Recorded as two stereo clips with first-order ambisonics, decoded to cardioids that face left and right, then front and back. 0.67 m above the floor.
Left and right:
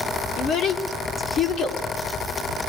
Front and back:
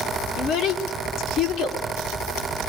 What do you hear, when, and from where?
0.4 s a child speaking: 40° left, 1.5 m